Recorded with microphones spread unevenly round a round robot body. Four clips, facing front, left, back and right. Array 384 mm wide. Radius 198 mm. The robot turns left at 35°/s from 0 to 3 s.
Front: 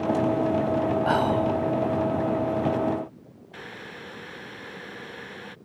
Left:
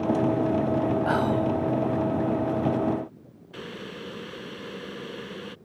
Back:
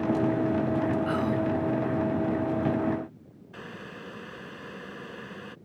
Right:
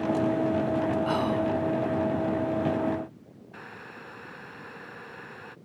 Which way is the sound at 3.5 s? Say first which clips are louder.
Left 7 dB, front 1 dB; 105° left.